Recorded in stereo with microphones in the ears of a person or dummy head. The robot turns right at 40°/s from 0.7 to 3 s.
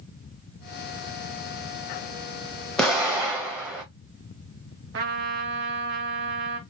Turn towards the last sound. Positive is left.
turn(degrees=-55)  # may be behind; listen again after turning